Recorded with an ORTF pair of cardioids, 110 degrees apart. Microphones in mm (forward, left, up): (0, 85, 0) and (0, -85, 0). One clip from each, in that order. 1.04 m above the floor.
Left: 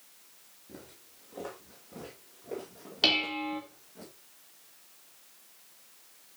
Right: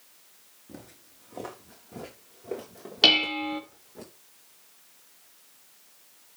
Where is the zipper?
No zipper in this recording.